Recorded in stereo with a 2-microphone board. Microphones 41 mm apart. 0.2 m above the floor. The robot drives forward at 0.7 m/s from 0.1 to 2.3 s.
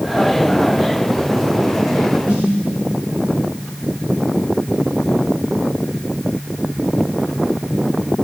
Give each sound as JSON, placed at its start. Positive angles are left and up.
{"t": 2.3, "sound": "a snare drum", "side_deg": -45, "distance_m": 7.5}